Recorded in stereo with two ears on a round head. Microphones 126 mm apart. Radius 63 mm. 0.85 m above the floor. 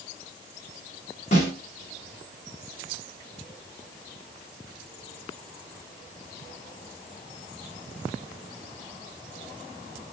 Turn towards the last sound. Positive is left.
turn(degrees=55)  # may be behind; listen again after turning